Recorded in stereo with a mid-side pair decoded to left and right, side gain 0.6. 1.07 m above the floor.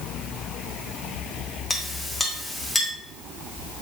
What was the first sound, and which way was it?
A clink, 15° left.